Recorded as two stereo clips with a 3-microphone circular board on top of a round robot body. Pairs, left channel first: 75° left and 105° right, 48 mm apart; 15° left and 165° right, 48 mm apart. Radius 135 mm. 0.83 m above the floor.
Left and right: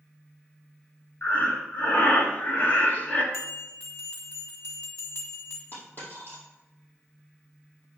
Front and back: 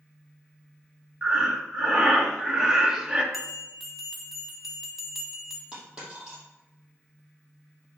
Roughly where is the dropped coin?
Behind left.